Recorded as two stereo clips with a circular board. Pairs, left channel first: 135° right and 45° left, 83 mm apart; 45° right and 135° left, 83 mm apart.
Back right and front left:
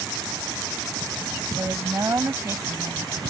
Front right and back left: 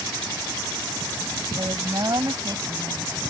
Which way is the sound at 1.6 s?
100° left.